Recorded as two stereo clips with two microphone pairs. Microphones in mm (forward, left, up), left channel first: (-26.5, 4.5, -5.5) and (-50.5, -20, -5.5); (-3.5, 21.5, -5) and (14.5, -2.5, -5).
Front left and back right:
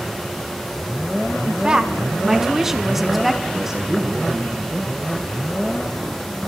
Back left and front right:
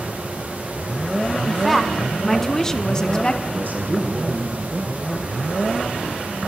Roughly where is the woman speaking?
Behind right.